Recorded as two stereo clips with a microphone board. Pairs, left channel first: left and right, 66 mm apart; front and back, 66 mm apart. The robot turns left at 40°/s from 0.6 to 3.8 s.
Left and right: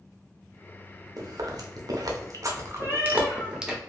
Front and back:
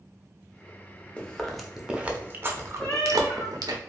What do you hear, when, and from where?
1.2 s chewing: 70° right, 0.6 m; by 3.8 s 175° right, 0.6 m
2.8 s a cat meowing: 85° left, 1.4 m; by 3.6 s 55° left, 1.4 m